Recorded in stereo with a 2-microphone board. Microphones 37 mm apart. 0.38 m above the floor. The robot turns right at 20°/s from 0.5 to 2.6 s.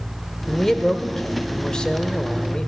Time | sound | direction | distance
0.5 | a man speaking | 10° left (ahead or behind) | 1.1 m